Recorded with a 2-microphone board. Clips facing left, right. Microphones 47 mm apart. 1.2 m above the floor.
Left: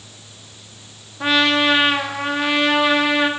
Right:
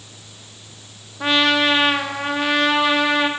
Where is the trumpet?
Centre (ahead or behind), 1.8 m.